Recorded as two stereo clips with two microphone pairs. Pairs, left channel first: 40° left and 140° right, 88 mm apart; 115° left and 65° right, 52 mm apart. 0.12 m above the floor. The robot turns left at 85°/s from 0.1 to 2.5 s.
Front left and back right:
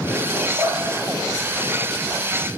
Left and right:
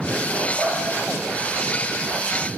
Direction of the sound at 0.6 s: 155° right.